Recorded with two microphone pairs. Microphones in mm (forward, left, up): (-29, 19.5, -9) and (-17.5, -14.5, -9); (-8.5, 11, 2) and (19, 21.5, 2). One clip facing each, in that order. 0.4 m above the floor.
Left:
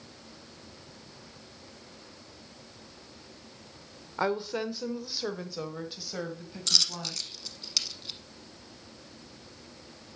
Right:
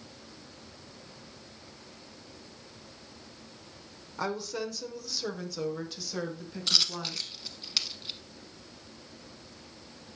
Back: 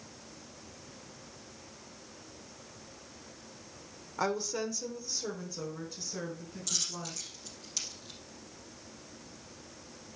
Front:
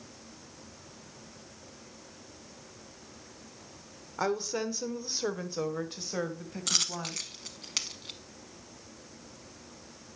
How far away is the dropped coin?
About 0.8 m.